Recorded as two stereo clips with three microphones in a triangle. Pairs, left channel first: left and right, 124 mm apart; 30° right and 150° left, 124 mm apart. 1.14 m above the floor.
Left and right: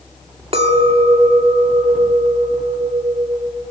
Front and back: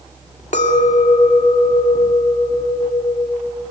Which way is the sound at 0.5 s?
50° right.